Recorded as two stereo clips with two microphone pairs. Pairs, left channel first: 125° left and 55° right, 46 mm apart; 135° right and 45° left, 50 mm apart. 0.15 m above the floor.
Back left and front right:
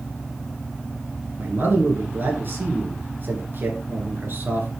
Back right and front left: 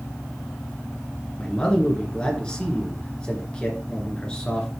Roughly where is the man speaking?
Right.